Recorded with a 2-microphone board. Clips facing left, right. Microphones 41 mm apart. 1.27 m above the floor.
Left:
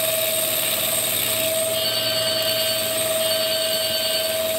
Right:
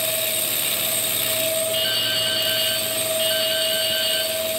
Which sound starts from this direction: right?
Dripping, at 1.7 s.